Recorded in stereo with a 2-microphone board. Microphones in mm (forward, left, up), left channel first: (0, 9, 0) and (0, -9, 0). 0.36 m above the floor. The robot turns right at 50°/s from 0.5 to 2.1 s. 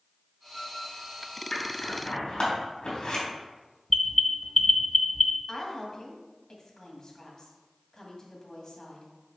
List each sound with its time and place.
1.5 s scissors: 65° left (ahead or behind), 3 m; by 3.2 s 50° left (ahead or behind), 3 m
3.9 s an alarm: 15° left (ahead or behind), 0.9 m
5.5 s a woman speaking: 40° left (ahead or behind), 1.8 m